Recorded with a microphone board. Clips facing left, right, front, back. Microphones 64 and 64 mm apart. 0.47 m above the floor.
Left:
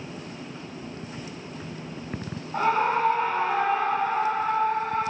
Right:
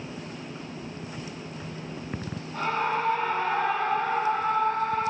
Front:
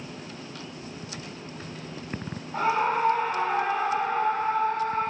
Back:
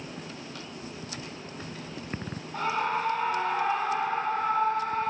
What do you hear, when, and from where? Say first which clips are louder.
2.5 s a scream: left 4 dB, front 4 dB; 65° left, 1.1 m; by 5.1 s 25° left, 2.5 m